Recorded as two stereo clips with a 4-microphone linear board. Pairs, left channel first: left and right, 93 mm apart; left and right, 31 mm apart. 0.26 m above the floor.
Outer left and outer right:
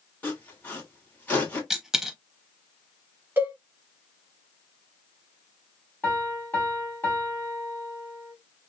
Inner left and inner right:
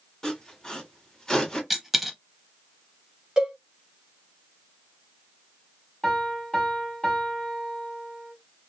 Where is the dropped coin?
5° right (ahead or behind), 0.8 m.